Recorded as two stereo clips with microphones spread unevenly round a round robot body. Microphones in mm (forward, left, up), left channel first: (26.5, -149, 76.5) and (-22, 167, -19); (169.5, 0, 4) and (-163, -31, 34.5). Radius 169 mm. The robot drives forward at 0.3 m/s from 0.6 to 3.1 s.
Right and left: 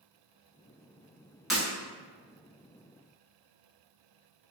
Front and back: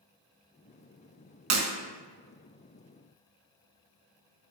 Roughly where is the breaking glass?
Behind.